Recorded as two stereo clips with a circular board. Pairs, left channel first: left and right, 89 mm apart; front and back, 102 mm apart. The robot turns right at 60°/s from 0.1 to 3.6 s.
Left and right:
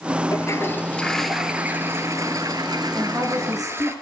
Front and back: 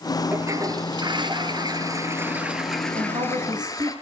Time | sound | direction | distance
0.3 | a toilet flushing | 125° left | 2.5 m
3.0 | a woman speaking | 170° right | 7 m